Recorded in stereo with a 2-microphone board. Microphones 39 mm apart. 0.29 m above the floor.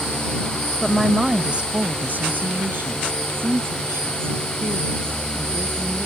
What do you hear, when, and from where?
0.8 s a woman speaking: 10° left (ahead or behind); by 6.1 s 80° right